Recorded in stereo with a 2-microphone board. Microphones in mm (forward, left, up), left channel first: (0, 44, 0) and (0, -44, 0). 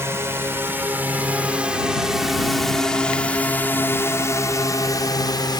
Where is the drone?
30° right (ahead or behind); by 5.6 s 50° left (ahead or behind).